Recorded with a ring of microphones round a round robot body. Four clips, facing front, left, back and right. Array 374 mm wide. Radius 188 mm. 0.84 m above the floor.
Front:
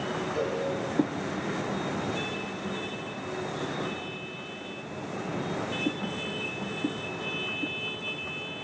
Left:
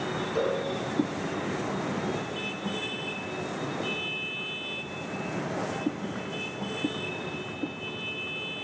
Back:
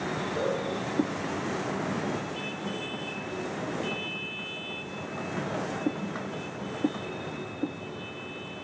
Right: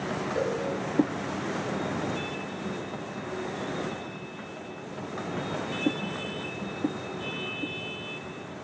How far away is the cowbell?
About 4.5 m.